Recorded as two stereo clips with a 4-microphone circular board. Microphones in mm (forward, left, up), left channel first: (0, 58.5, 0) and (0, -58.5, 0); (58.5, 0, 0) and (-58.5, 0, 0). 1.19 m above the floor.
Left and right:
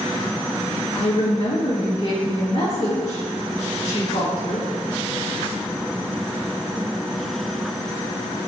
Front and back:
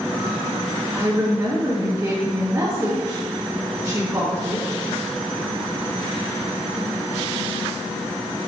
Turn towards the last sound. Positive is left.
turn(degrees=115)